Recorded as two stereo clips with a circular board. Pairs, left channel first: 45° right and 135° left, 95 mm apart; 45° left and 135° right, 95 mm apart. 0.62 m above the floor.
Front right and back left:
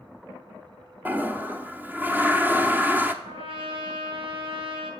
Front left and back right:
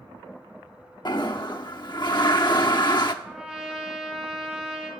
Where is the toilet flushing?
70° left, 0.7 m.